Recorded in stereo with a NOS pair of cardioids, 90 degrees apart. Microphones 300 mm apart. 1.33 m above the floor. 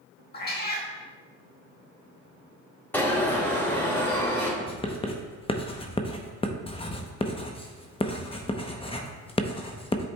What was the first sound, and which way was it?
A cat meowing, 35° left.